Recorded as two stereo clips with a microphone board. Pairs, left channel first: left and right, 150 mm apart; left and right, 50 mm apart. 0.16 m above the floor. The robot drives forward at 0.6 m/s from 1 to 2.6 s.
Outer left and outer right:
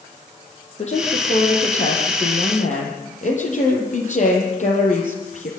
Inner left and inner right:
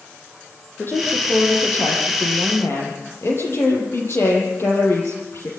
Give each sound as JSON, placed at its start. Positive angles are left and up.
{"t": 0.8, "sound": "a woman speaking", "side_deg": 50, "distance_m": 7.0}